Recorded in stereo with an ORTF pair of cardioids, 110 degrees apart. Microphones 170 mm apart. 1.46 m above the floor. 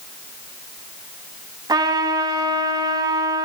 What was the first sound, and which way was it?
A trumpet, 20° right.